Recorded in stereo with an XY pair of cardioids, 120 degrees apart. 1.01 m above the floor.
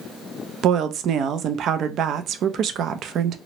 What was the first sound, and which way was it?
A woman speaking, 60° right.